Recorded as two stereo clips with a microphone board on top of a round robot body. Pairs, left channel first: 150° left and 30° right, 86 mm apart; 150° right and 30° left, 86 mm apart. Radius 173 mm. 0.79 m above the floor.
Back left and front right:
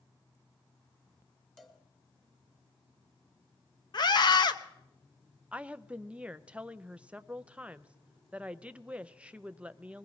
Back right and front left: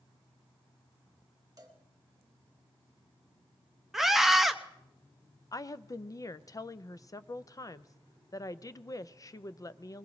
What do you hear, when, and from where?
1.6 s a cowbell: 65° left, 1.7 m
3.9 s a scream: 115° left, 1.1 m
5.5 s a woman speaking: 105° right, 0.6 m